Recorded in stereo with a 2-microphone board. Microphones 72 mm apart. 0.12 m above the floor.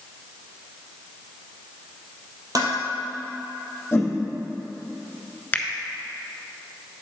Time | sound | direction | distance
2.5 | dishes clattering | 60° right (ahead or behind) | 2.5 m
3.9 | a whoosh | 30° left (ahead or behind) | 2.5 m
5.5 | a finger snap | 25° left (ahead or behind) | 1.0 m